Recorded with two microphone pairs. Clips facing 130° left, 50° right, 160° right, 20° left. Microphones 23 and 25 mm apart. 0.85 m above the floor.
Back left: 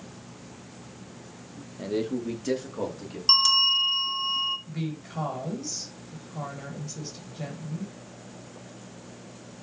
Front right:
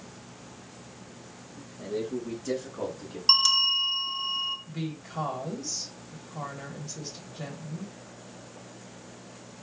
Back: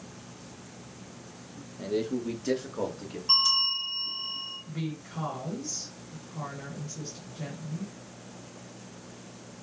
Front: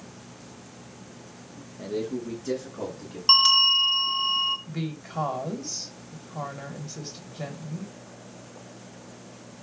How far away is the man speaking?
About 0.7 m.